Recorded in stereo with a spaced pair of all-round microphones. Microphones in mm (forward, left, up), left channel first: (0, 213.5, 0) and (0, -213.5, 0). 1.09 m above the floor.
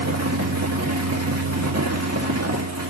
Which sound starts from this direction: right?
A fan, at 0.0 s.